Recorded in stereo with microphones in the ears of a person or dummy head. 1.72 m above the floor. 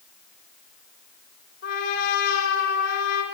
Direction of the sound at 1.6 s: 80° left.